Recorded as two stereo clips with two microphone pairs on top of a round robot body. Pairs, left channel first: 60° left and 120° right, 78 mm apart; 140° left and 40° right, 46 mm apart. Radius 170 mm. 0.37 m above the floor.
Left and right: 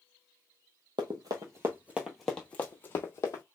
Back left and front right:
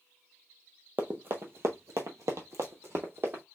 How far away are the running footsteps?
About 0.8 m.